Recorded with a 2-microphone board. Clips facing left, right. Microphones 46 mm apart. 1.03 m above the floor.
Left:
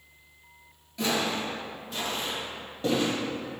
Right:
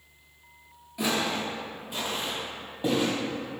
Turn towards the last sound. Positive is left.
turn(degrees=-15)  # may be behind; listen again after turning